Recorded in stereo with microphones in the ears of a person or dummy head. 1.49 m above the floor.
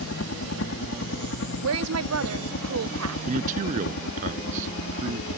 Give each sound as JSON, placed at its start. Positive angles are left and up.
{"t": 0.0, "sound": "a helicopter", "side_deg": 60}
{"t": 1.6, "sound": "a woman speaking", "side_deg": -80}
{"t": 3.3, "sound": "a man speaking", "side_deg": -35}